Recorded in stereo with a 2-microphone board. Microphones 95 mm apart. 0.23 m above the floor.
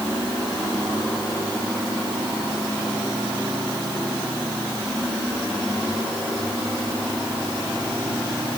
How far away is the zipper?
I don't hear a zipper.